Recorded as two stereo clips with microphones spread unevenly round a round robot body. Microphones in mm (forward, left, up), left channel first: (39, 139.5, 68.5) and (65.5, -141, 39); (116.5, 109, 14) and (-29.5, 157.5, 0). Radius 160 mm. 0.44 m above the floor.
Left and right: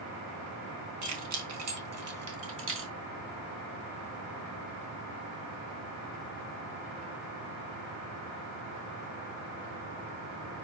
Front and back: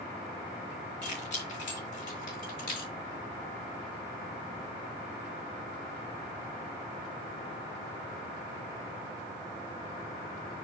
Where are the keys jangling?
65° right, 3 m; by 2.9 s 40° right, 3 m.